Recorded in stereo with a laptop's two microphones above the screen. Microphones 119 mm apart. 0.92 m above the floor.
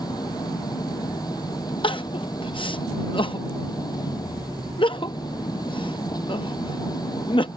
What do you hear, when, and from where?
0.0 s an engine running: 35° left (ahead or behind)
1.8 s crying: 45° left (ahead or behind)